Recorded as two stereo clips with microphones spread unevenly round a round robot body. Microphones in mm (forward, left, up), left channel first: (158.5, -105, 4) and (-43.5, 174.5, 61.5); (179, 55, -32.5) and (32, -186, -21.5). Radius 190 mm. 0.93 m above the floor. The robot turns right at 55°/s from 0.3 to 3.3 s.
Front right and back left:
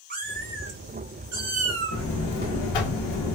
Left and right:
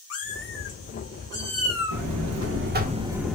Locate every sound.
0.1 s a cat meowing: 80° left, 0.7 m; by 2.0 s 175° left, 0.7 m
1.9 s a buzzer: 105° right, 0.7 m; by 3.4 s 30° right, 0.7 m